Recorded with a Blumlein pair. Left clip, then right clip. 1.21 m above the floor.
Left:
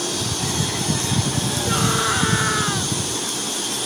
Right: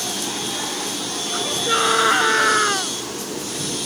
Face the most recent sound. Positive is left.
turn(degrees=-15)